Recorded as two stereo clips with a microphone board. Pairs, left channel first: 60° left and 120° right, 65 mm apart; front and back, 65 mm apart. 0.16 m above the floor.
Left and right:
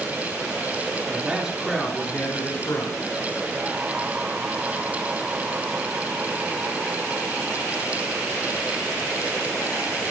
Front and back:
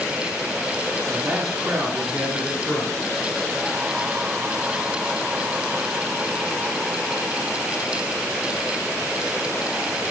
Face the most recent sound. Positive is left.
turn(degrees=80)